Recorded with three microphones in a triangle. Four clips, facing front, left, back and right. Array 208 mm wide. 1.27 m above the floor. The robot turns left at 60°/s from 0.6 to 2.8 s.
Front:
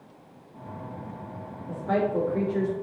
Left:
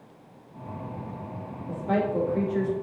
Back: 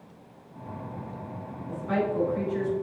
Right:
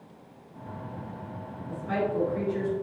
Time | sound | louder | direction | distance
1.7 | a woman speaking | left 3 dB, front 2 dB | 70° left | 3.5 m